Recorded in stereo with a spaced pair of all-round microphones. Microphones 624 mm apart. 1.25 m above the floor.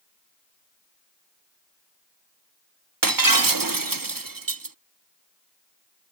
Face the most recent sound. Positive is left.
turn(degrees=-35)  # may be behind; listen again after turning